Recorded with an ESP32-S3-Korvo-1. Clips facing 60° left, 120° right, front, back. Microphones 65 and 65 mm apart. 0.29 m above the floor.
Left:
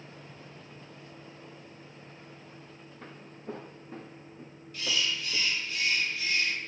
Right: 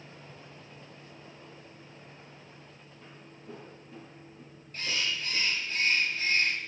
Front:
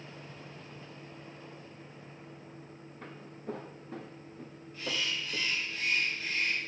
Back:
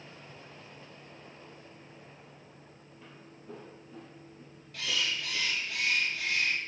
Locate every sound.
3.0 s footsteps: 35° left, 1.7 m; by 5.5 s straight ahead, 2 m
4.7 s a bird: 170° right, 1.7 m